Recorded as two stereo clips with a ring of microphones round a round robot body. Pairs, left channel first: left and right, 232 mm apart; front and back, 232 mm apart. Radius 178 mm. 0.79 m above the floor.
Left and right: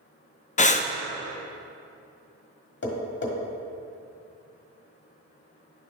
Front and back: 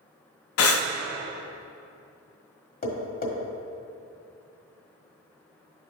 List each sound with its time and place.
0.6 s breathing: 25° left, 0.5 m
2.8 s tapping: 50° left, 1.6 m